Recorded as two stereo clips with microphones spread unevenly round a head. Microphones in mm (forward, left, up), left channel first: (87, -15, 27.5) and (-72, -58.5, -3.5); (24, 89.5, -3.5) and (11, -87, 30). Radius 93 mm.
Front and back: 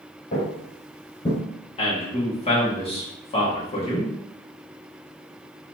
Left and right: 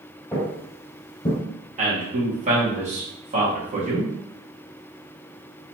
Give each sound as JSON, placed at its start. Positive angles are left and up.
{"t": 0.3, "sound": "footsteps", "azimuth_deg": 0, "distance_m": 1.4}
{"t": 1.8, "sound": "a man speaking", "azimuth_deg": -40, "distance_m": 1.8}